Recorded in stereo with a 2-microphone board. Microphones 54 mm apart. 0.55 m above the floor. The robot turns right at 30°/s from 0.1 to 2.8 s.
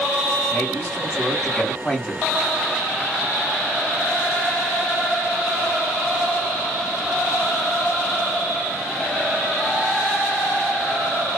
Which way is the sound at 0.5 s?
125° left.